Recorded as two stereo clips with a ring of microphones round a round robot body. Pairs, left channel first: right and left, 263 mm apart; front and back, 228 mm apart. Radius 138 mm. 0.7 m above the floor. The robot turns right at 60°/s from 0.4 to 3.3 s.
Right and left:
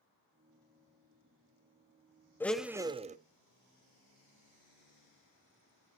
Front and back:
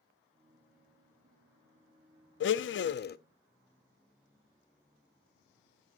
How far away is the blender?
About 0.6 m.